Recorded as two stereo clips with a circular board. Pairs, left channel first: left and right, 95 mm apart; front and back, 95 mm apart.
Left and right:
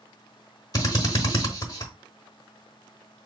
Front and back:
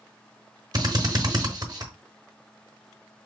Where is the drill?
135° left, 0.9 m.